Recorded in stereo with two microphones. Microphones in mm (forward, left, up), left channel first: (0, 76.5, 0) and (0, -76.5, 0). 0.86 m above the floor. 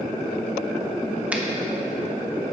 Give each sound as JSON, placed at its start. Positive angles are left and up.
{"t": 1.3, "sound": "a finger snap", "side_deg": -10, "distance_m": 0.6}